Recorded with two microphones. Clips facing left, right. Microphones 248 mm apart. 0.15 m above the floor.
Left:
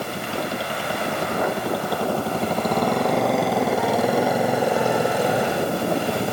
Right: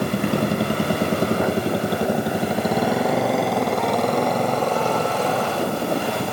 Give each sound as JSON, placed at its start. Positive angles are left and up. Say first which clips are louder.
{"t": 0.0, "sound": "a motorcycle", "louder": "right 7 dB", "side_deg": -70}